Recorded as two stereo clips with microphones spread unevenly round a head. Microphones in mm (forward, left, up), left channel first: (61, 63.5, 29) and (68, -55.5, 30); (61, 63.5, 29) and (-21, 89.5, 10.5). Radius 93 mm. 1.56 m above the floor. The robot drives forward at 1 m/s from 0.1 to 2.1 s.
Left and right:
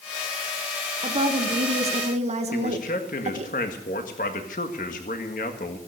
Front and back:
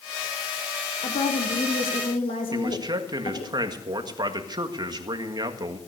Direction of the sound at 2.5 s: 125° left.